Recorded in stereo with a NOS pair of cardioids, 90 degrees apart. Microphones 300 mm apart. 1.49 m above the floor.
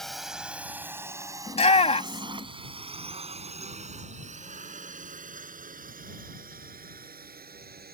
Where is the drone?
Straight ahead; by 8.0 s 30° right.